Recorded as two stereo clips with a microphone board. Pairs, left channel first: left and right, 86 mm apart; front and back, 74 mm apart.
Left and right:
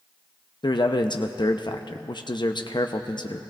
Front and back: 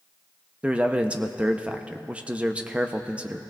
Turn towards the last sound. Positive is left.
turn(degrees=110)